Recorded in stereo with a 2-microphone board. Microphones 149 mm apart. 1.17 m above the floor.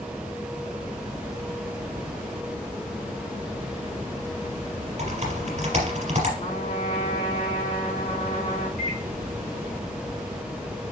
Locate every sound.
5.0 s typing on a keyboard: 50° right (ahead or behind), 4 m
6.4 s a trumpet: 50° left (ahead or behind), 4 m
8.8 s a microwave: 65° left (ahead or behind), 1.8 m